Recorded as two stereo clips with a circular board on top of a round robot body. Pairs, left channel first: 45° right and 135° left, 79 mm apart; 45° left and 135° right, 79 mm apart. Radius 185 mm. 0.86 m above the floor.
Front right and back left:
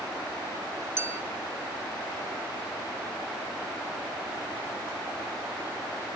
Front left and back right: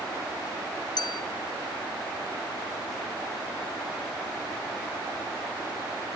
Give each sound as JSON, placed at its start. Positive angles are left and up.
{"t": 1.0, "sound": "a clink", "azimuth_deg": 75, "distance_m": 0.8}